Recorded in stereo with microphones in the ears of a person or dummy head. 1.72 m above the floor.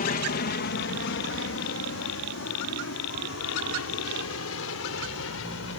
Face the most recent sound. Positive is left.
turn(degrees=75)  # may be behind; listen again after turning